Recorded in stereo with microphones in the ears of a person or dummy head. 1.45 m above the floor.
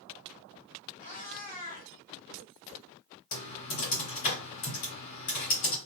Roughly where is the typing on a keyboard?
Left.